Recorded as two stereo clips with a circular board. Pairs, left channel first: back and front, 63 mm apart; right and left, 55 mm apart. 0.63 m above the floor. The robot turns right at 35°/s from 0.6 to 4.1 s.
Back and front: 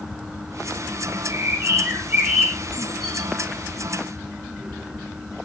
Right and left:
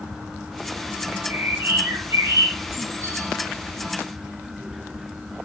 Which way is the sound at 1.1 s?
25° left.